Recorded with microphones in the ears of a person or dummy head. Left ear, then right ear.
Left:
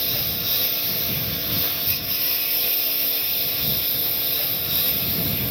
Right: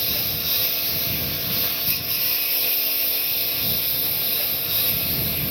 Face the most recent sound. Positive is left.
turn(degrees=-15)  # may be behind; listen again after turning